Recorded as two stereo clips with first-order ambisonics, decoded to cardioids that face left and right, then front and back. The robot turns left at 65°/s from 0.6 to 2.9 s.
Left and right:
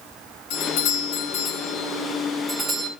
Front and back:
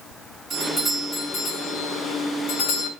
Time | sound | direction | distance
0.5 | a doorbell | 110° left | 8 m